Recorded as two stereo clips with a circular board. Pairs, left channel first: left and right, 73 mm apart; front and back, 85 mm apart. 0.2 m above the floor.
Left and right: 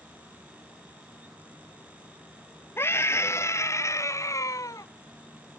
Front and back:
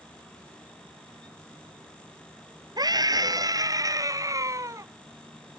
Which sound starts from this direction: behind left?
A scream, at 2.8 s.